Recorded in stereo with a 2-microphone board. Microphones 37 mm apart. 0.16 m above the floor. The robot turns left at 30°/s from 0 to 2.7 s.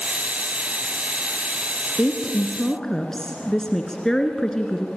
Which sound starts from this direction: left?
A woman speaking, at 2.0 s.